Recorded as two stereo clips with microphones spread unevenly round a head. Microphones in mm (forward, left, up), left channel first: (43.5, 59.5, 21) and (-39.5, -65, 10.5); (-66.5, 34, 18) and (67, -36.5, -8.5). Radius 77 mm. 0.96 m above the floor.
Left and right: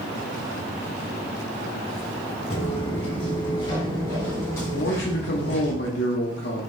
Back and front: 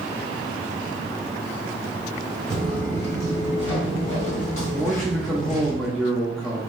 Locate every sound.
2.5 s footsteps: 80° left, 1.2 m; by 5.7 s 130° left, 2 m
4.7 s a man speaking: 60° left, 0.7 m